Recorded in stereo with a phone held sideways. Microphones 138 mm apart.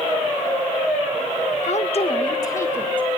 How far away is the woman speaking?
About 1.5 m.